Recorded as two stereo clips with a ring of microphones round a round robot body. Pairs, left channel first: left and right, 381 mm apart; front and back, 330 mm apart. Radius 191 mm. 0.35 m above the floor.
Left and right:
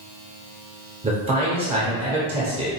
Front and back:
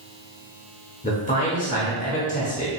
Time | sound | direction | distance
1.0 | a man speaking | 35° right | 1.0 m